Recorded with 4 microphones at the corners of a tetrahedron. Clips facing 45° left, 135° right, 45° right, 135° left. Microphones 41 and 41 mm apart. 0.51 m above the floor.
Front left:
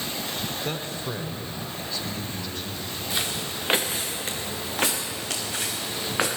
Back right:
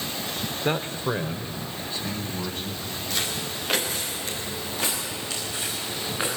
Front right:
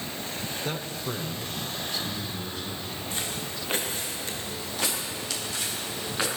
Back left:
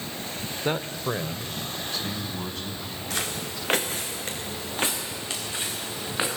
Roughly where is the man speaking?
Behind.